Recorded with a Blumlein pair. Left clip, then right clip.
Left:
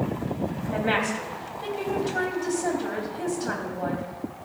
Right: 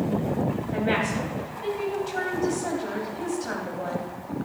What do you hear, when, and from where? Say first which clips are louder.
0.7 s a woman speaking: left 1 dB; 10° left, 3.5 m